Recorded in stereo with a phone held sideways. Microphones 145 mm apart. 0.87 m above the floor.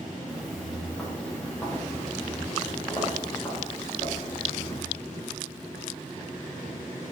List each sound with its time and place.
0.3 s footsteps: 5° right (ahead or behind), 4 m; by 4.8 s 35° left (ahead or behind), 7 m